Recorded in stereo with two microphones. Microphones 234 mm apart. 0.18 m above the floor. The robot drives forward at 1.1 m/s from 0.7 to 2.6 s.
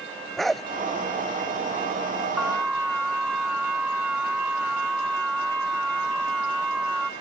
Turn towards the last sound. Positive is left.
turn(degrees=-5)  # may be behind; listen again after turning